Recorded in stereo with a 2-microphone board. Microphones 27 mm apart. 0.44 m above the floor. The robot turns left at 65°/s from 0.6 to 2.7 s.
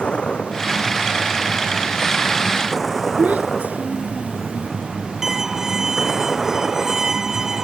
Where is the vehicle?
140° left; by 7.7 s 5° left.